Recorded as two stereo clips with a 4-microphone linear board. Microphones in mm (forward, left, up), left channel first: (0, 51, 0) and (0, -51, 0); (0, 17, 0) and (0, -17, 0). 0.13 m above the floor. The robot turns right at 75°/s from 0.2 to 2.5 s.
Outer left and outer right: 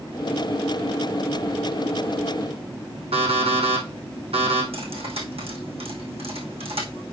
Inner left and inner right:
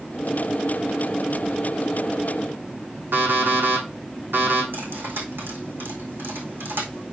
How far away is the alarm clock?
About 3 m.